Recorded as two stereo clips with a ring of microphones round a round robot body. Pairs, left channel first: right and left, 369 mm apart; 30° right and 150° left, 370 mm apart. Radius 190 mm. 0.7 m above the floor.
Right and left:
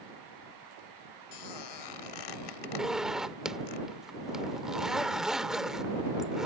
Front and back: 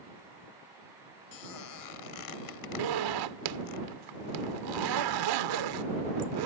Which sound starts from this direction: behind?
A zipper, at 2.8 s.